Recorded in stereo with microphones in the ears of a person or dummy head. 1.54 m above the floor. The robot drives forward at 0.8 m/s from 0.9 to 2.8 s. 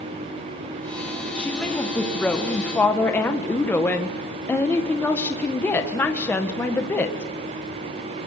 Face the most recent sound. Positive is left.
turn(degrees=5)  # may be behind; listen again after turning